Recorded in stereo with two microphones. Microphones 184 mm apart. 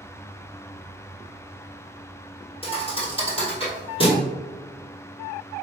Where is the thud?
30° left (ahead or behind), 1.8 m.